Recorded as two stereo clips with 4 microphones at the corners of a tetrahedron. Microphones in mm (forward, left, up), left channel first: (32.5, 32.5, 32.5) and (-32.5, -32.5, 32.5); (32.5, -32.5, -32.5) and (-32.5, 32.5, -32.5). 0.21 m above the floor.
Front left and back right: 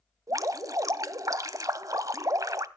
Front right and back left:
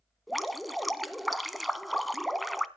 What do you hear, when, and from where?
0.3 s dripping: 135° right, 0.8 m